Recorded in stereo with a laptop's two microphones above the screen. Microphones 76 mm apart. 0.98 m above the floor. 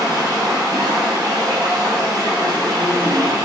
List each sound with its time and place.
0.0 s running water: 60° right (ahead or behind), 6.5 m